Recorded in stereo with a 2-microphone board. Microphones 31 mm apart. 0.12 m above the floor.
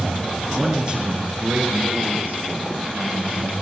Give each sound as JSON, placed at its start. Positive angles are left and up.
{"t": 0.5, "sound": "a man speaking", "side_deg": -15, "distance_m": 1.6}